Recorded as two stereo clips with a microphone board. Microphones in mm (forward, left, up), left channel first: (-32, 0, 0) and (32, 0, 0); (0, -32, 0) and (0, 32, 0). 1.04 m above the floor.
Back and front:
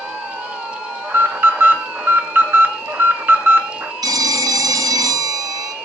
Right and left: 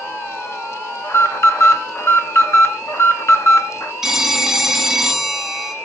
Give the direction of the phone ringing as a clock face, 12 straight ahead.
12 o'clock.